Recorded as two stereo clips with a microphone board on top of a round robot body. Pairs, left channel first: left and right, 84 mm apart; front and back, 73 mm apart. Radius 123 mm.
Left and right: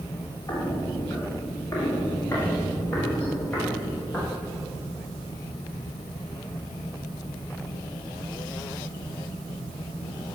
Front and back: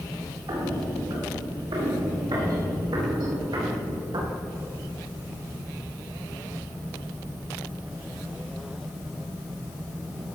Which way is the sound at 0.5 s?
145° left.